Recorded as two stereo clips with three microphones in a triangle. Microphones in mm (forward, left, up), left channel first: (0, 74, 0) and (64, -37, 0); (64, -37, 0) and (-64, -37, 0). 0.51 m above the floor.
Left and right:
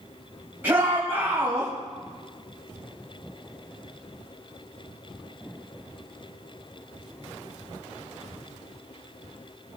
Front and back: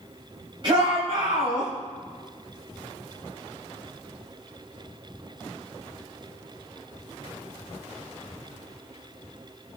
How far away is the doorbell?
I don't hear a doorbell.